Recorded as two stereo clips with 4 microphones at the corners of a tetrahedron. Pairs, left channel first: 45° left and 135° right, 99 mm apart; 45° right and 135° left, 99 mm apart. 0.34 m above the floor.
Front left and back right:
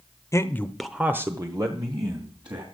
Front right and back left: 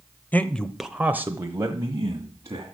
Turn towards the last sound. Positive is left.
turn(degrees=-170)